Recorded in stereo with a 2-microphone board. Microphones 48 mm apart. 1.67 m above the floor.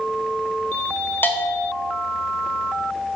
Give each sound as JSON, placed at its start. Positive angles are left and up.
{"t": 1.2, "sound": "a bell", "side_deg": 45, "distance_m": 0.8}